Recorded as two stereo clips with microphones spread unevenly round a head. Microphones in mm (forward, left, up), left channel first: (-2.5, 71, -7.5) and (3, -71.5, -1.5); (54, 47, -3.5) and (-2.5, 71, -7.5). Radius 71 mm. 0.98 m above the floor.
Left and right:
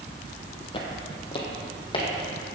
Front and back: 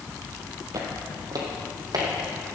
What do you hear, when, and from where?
0.7 s footsteps: 145° left, 1.9 m; by 2.1 s 150° left, 3 m